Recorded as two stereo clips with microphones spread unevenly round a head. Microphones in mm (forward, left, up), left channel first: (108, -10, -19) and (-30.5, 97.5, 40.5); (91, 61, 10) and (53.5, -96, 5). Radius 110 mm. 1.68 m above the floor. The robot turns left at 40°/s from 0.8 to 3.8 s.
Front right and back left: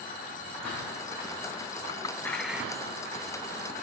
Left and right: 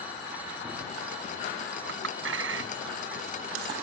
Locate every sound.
1.9 s a clink: 110° right; by 3.2 s 160° right